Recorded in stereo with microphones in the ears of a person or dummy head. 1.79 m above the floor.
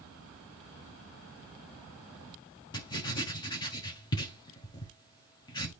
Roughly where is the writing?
Left.